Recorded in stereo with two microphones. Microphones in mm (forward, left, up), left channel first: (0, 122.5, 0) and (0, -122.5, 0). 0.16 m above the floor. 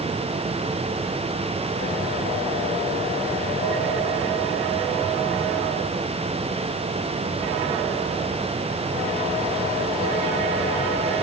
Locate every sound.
Only background noise.